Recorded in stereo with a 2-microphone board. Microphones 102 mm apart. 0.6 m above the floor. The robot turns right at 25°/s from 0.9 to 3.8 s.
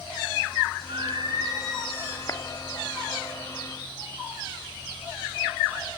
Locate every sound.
0.9 s singing: 50° right, 5.5 m; by 2.2 s 20° right, 5.5 m
2.3 s a clap: 35° left (ahead or behind), 1.1 m; by 2.4 s 30° left (ahead or behind), 1.1 m